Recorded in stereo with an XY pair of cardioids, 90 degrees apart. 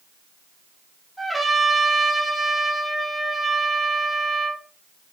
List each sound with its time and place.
1.2 s a trumpet: straight ahead, 2 m